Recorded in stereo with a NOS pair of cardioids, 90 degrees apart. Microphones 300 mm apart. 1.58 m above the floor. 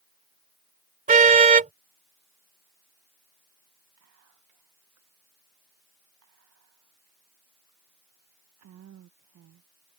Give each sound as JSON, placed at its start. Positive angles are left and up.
{"t": 1.1, "sound": "a car horn", "azimuth_deg": -25}
{"t": 4.0, "sound": "whispering", "azimuth_deg": -65}